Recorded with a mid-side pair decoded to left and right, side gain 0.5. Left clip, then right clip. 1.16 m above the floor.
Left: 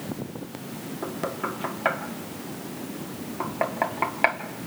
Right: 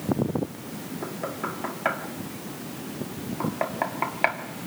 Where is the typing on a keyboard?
No typing on a keyboard in this recording.